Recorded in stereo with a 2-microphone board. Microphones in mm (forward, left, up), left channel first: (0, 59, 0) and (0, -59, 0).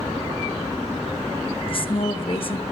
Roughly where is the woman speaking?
Left.